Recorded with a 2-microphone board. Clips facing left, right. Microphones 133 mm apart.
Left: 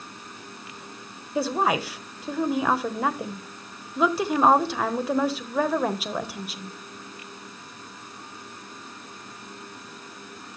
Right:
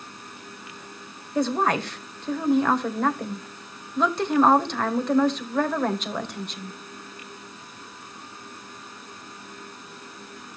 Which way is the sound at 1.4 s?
5° left (ahead or behind).